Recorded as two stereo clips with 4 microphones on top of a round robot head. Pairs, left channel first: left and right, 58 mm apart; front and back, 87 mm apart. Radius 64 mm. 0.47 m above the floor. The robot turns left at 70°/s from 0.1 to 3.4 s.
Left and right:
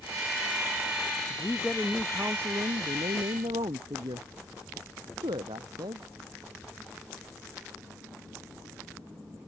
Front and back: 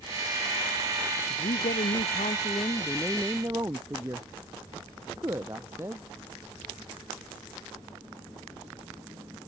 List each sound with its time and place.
1.3 s a woman speaking: 35° left; by 6.0 s 110° right